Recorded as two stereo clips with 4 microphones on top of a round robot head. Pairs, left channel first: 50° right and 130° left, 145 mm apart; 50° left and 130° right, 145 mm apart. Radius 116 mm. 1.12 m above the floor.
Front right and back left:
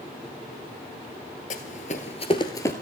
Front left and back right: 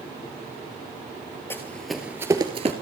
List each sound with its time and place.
1.5 s running footsteps: 20° right, 1.3 m; by 2.7 s 115° right, 1.2 m